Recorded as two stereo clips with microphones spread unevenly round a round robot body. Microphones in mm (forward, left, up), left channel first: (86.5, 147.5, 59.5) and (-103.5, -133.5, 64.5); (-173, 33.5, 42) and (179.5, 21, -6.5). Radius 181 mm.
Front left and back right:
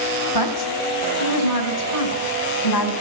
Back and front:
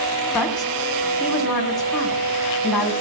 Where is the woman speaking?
90° left, 4 m.